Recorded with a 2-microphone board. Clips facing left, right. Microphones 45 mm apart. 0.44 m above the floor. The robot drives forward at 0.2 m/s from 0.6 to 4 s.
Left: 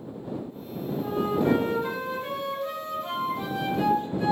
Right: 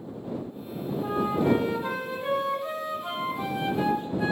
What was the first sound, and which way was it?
A flute, 20° right (ahead or behind).